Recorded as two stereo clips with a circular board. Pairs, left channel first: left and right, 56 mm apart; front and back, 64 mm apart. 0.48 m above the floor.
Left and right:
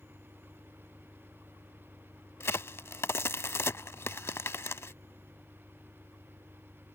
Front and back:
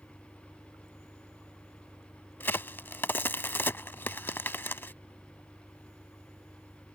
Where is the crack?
55° left.